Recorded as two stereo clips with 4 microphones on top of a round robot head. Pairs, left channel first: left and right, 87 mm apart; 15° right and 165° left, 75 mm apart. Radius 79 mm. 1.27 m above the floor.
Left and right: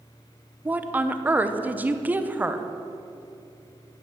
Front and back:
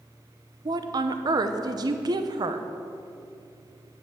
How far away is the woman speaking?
About 0.9 m.